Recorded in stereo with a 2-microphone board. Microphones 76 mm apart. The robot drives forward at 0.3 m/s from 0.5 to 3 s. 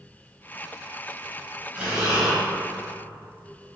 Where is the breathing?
15° right (ahead or behind), 0.7 m; by 2.4 s 10° right (ahead or behind), 0.9 m.